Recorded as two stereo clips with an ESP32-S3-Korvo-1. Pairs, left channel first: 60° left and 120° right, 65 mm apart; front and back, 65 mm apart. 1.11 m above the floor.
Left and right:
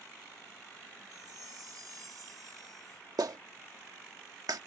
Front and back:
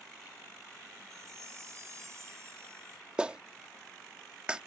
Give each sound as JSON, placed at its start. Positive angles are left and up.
{"t": 1.1, "sound": "a chime", "azimuth_deg": -140}
{"t": 3.2, "sound": "a clap", "azimuth_deg": -105}